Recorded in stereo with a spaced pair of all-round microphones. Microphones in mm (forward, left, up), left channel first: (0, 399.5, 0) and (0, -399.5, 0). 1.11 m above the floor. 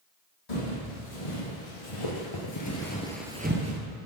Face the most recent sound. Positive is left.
turn(degrees=-25)  # may be behind; listen again after turning